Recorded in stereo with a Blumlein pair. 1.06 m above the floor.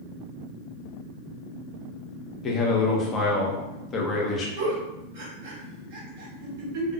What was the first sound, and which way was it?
A man speaking, 25° left.